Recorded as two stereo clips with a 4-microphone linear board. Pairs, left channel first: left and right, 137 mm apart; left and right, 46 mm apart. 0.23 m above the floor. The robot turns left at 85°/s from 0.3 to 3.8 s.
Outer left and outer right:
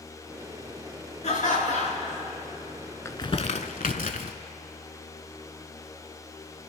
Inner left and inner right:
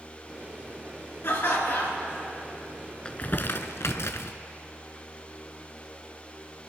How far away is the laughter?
About 3 m.